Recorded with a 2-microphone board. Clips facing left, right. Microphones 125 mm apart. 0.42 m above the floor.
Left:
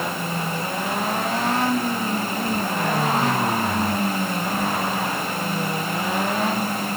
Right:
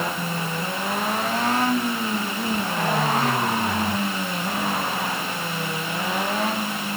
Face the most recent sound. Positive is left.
No sound to turn to.